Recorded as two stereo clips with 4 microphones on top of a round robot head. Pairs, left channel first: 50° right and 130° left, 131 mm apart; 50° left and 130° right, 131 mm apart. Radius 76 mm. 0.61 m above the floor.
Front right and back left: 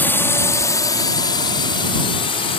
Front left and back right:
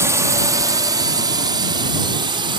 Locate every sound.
0.0 s a drone: 100° right; by 2.6 s 85° right